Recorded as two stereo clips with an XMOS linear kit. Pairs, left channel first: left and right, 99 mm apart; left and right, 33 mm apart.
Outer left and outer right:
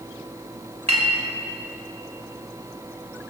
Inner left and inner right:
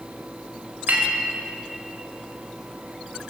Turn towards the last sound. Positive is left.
turn(degrees=-90)